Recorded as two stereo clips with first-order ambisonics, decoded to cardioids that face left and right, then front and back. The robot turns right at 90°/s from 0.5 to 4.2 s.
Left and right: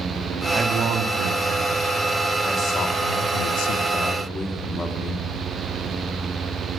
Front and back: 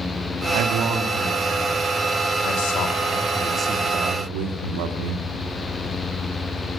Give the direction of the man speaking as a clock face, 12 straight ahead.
5 o'clock.